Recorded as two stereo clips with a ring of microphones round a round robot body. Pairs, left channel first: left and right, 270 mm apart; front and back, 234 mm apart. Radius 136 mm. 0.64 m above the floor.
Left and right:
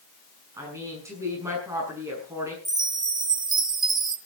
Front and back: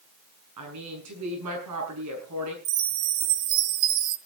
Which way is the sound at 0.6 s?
170° right.